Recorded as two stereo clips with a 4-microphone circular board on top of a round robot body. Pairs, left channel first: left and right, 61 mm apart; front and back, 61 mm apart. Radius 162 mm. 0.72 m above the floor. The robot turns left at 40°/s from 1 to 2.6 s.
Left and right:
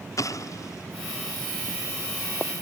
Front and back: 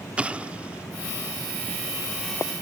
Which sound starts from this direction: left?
An explosion, at 0.2 s.